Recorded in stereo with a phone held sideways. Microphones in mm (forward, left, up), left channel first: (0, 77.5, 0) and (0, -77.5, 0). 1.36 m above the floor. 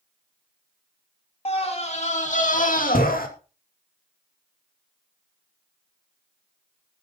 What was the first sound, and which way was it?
A scream, 40° left (ahead or behind).